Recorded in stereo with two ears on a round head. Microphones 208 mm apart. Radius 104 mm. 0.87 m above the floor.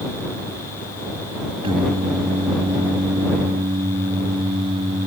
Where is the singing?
25° right (ahead or behind).